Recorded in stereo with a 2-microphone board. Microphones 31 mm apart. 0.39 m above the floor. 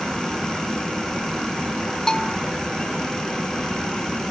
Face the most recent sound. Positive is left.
turn(degrees=25)  # may be behind; listen again after turning